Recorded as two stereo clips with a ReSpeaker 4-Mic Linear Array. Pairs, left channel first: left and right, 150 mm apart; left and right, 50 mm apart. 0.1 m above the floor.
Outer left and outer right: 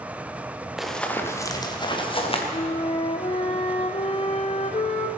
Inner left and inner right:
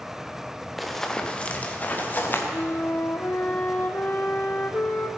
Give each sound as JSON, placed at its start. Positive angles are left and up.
{"t": 0.8, "sound": "running footsteps", "side_deg": 0, "distance_m": 1.8}
{"t": 2.5, "sound": "a flute", "side_deg": 45, "distance_m": 1.2}